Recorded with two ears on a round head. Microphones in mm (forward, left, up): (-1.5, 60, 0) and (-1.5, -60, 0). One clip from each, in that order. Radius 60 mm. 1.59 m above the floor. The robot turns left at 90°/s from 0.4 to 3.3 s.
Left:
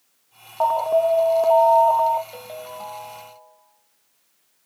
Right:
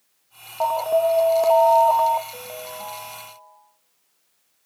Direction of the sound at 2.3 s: 45° left.